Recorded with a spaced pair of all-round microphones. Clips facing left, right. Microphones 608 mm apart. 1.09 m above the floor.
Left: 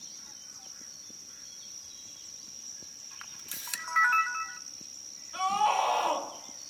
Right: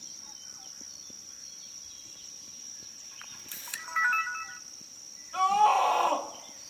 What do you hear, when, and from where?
3.2 s a camera shutter: 70° left (ahead or behind), 0.5 m
5.3 s a scream: 75° right (ahead or behind), 1.7 m